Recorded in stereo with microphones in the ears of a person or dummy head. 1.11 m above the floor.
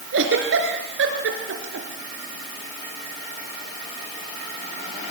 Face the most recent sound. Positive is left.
turn(degrees=-75)  # may be behind; listen again after turning